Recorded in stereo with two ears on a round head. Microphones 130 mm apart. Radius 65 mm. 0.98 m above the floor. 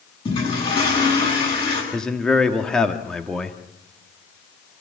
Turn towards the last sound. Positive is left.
turn(degrees=5)  # may be behind; listen again after turning